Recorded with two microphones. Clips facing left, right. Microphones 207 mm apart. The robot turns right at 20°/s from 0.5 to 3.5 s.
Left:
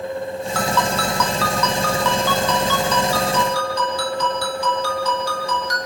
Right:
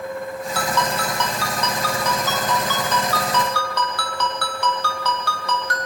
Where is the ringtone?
170° right, 4 m; by 5.9 s 110° right, 4 m.